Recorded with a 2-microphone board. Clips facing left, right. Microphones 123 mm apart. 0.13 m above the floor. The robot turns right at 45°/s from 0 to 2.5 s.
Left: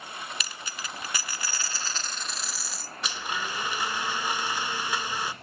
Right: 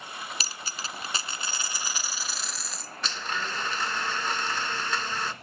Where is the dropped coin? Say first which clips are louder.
Right 1 dB; 90° right, 0.5 m; by 2.9 s 5° left, 0.5 m.